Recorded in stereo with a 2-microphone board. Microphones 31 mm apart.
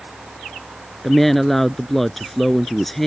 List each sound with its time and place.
1.0 s a woman speaking: 5° left (ahead or behind)